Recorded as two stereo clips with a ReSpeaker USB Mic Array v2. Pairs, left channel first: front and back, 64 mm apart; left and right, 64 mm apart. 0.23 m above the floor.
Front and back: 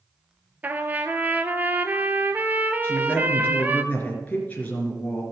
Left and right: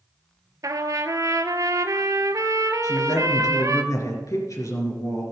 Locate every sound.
0.6 s a trumpet: 120° right, 0.9 m
2.8 s a woman speaking: 65° left, 3.5 m